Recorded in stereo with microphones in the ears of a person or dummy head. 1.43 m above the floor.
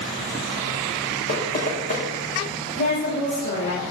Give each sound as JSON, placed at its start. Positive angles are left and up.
{"t": 1.3, "sound": "knocking", "side_deg": 40, "distance_m": 1.8}
{"t": 2.8, "sound": "a woman speaking", "side_deg": 85, "distance_m": 3.0}